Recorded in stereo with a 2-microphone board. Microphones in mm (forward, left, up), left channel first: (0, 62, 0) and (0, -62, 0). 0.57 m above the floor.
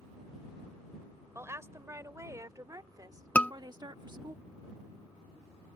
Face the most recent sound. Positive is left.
turn(degrees=10)  # may be behind; listen again after turning